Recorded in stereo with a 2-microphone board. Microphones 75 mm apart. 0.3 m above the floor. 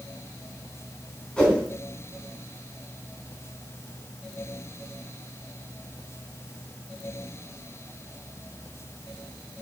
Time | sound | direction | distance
1.4 | a whoosh | 15° left (ahead or behind) | 3 m